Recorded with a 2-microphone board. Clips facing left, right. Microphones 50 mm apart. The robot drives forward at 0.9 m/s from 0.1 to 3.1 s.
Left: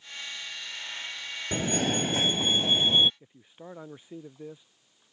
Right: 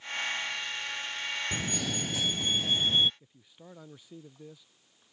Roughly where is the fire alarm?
Left.